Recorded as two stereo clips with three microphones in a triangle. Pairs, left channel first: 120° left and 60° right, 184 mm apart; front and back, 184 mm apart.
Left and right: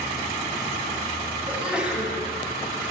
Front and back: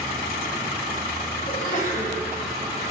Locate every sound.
1.5 s a sneeze: 20° left, 3 m